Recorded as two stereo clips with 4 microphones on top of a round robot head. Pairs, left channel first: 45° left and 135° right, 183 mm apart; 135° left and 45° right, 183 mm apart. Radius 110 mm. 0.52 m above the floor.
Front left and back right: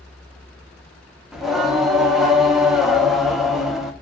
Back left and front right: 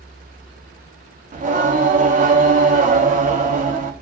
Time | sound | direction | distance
1.3 | singing | 45° right | 0.8 m